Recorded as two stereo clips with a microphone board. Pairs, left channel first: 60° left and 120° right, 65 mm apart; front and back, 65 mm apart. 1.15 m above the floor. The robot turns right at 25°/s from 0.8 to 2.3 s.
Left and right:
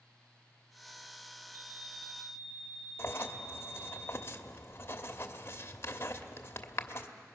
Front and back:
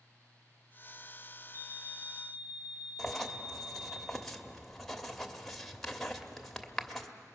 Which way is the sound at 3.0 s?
85° left.